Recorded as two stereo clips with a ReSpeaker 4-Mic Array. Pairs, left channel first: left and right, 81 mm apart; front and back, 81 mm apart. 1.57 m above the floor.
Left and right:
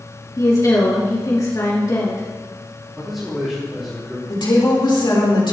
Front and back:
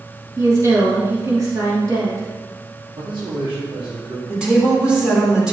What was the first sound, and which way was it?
A woman speaking, 130° left.